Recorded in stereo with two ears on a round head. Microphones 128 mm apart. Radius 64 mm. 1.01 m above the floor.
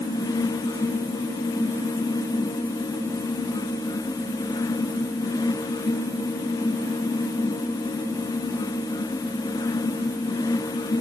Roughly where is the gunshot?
I don't hear a gunshot.